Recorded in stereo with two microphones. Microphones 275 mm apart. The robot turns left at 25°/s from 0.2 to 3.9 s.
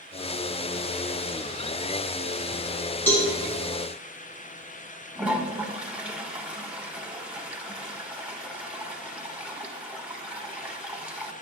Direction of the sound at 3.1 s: 10° left (ahead or behind).